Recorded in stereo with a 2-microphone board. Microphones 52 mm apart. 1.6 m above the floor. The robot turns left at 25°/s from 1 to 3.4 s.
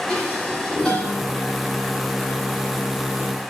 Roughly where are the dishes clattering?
Centre.